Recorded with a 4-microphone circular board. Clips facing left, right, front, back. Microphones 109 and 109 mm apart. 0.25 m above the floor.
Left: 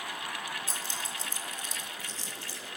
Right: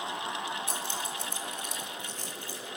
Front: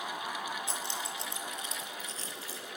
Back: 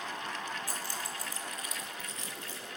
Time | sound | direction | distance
0.7 | keys jangling | 65° right | 4.5 m